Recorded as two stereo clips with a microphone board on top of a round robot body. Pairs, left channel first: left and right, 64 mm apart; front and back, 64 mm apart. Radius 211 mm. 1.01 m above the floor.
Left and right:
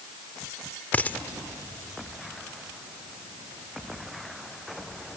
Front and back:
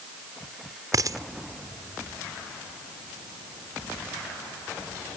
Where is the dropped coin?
155° left.